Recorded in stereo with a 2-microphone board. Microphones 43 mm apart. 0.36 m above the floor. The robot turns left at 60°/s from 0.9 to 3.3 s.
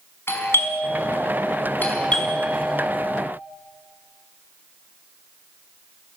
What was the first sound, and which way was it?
A doorbell, 100° left.